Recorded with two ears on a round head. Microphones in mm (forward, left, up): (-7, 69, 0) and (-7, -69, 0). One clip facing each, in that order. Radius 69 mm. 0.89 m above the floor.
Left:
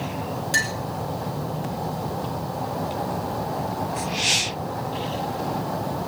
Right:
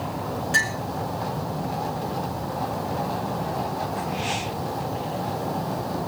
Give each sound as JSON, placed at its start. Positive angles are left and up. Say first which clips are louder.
{"t": 0.5, "sound": "a clink", "louder": "even", "side_deg": 45, "distance_m": 5.5}